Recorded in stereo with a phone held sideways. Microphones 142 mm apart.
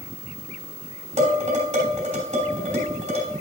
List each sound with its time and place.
1.2 s dishes clattering: 50° right (ahead or behind), 3 m